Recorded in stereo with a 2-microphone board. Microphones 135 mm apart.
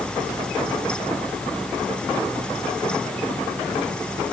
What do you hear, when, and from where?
Only background noise.